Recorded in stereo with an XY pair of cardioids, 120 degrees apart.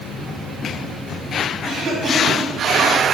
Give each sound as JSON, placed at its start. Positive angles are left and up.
{"t": 1.6, "sound": "a cough", "azimuth_deg": -35, "distance_m": 3.0}